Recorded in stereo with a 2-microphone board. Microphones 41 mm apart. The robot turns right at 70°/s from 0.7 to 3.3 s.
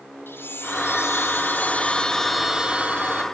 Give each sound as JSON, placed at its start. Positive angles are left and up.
{"t": 0.3, "sound": "a chime", "azimuth_deg": 65, "distance_m": 0.8}